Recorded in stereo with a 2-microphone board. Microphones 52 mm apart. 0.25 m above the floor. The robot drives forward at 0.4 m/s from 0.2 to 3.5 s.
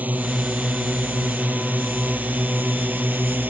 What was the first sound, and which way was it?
A drone, 30° right (ahead or behind).